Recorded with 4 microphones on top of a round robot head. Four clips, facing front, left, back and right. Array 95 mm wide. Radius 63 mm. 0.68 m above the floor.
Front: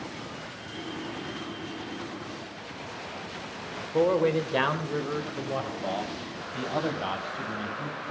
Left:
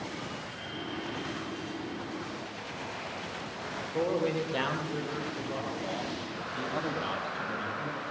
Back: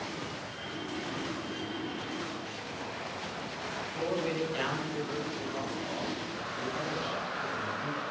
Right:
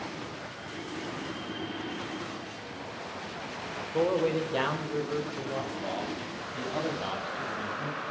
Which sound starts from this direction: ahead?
A man speaking, at 3.9 s.